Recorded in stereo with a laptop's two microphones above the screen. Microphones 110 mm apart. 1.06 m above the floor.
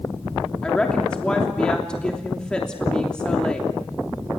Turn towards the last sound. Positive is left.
turn(degrees=10)  # may be behind; listen again after turning